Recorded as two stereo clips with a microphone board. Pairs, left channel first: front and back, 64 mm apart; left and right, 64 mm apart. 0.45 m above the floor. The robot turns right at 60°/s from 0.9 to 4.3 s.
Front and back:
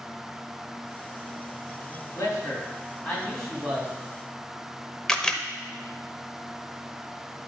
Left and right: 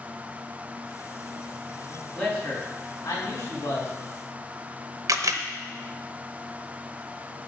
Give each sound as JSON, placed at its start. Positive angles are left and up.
{"t": 2.1, "sound": "a man speaking", "azimuth_deg": 10, "distance_m": 3.0}
{"t": 5.1, "sound": "a camera shutter", "azimuth_deg": -75, "distance_m": 0.8}